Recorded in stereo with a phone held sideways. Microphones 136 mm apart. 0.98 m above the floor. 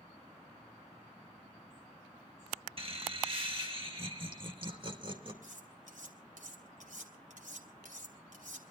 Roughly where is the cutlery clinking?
Right.